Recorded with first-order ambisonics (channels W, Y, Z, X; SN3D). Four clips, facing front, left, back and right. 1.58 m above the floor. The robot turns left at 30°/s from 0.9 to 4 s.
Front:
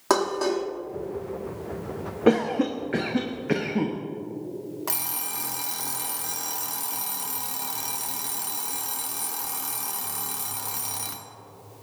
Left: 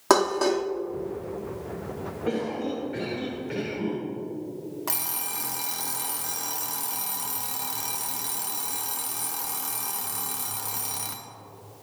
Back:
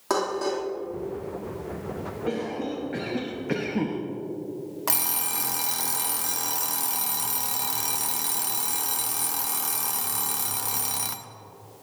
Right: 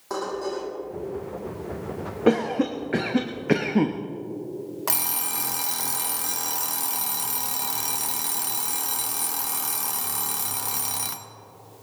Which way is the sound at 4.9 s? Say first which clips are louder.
Right 5 dB, back 6 dB; 135° right.